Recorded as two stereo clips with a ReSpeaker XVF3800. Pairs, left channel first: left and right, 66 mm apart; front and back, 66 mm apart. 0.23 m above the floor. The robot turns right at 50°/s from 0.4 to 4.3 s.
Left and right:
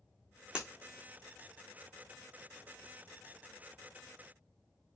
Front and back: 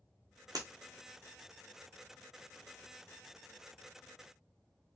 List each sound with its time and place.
0.6 s breaking glass: 165° right, 0.9 m; by 0.7 s 160° right, 0.9 m